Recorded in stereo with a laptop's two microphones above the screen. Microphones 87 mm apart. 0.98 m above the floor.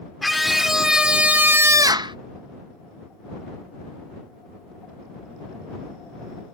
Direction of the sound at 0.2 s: Centre (ahead or behind).